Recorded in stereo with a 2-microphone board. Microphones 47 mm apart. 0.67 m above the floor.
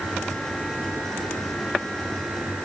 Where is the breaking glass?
I don't hear breaking glass.